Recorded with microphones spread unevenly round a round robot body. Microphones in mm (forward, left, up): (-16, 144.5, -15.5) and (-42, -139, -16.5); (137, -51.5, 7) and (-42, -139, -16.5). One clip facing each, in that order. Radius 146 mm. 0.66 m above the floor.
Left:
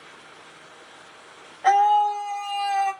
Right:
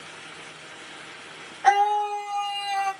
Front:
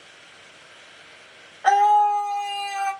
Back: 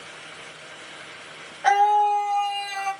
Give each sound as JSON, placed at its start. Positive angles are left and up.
{"t": 1.6, "sound": "a scream", "azimuth_deg": -155, "distance_m": 1.3}